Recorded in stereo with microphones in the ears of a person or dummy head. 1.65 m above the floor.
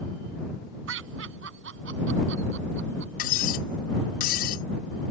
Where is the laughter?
80° right; by 3.1 s 75° right (ahead or behind).